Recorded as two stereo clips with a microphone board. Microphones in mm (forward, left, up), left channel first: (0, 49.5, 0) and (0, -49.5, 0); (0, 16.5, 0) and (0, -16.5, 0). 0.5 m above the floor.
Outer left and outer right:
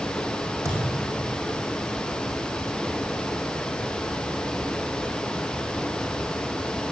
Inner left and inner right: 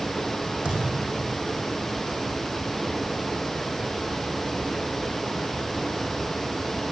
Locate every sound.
0.7 s a thud: 35° right (ahead or behind), 4 m